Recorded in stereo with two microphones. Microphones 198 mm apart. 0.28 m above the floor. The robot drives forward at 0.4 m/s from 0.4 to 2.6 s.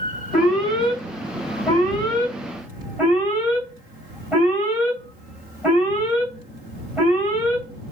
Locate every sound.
0.3 s an alarm: centre (ahead or behind), 1.8 m